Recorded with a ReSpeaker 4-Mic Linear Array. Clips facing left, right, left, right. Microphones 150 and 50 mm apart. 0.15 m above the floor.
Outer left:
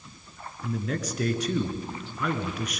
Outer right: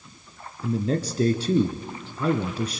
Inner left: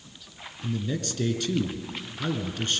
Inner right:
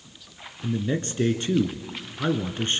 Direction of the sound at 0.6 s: 30° right (ahead or behind).